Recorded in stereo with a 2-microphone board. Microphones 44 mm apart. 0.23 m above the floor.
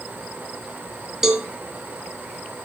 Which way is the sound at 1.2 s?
15° right (ahead or behind).